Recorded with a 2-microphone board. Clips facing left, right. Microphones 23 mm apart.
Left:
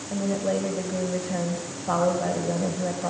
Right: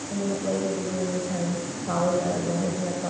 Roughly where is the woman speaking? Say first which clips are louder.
Left 2 dB; centre.